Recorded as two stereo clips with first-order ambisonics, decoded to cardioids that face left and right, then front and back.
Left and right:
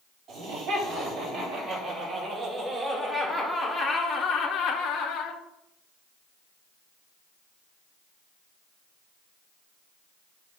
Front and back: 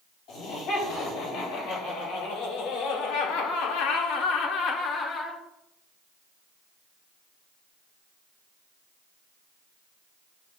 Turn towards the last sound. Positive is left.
turn(degrees=65)